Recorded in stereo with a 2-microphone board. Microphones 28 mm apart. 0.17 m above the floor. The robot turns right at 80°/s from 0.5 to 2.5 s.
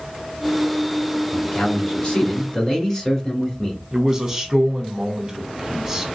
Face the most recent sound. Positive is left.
turn(degrees=-15)  # may be behind; listen again after turning